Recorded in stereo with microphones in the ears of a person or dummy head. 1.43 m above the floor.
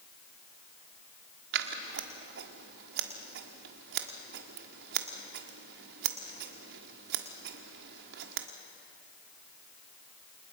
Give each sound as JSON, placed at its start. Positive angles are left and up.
{"t": 1.5, "sound": "scissors", "side_deg": -60, "distance_m": 1.5}